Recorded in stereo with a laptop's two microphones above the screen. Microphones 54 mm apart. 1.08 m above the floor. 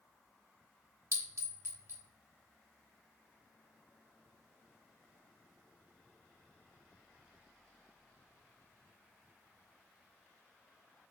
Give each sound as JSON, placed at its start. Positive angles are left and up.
{"t": 1.1, "sound": "a clink", "side_deg": -55, "distance_m": 1.0}